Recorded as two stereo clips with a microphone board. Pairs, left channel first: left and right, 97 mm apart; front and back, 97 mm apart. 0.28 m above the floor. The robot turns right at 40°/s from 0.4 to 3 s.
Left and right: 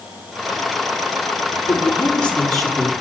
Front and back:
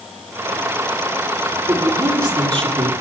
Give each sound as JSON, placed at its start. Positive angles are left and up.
{"t": 1.7, "sound": "a man speaking", "azimuth_deg": 140, "distance_m": 6.5}